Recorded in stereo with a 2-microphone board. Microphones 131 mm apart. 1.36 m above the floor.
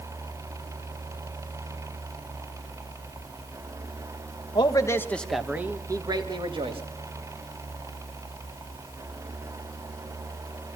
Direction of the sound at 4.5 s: 40° left (ahead or behind).